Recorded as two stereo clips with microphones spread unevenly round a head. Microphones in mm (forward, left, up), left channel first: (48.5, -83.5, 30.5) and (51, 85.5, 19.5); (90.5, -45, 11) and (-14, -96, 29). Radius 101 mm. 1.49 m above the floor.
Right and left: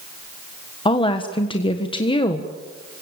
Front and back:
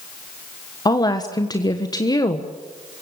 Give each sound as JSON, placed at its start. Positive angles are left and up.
{"t": 0.8, "sound": "a woman speaking", "azimuth_deg": -30, "distance_m": 1.5}